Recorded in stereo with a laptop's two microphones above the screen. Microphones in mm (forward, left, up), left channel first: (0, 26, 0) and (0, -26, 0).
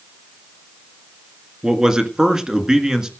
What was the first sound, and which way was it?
A man speaking, 15° right (ahead or behind).